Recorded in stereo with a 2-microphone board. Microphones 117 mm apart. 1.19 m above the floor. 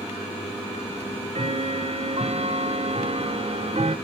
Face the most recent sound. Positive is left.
turn(degrees=-65)  # may be behind; listen again after turning